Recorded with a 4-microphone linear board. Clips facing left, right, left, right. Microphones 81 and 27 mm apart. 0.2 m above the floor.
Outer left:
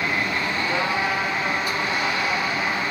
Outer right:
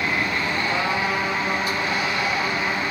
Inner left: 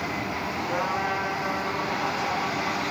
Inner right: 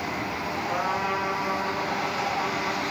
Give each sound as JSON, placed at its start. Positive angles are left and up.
{"t": 0.7, "sound": "a trumpet", "side_deg": 15, "distance_m": 3.0}